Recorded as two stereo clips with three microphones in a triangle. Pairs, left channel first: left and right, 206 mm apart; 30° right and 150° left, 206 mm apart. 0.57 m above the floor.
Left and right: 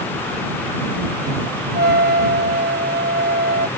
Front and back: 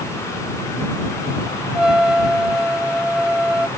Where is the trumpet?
125° right.